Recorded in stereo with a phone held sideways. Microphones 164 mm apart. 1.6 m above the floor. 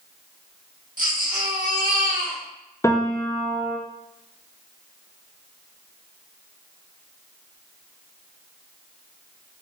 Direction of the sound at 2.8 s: 20° left (ahead or behind).